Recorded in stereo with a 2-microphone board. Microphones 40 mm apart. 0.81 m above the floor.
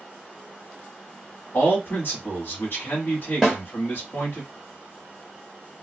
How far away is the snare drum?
About 1.2 m.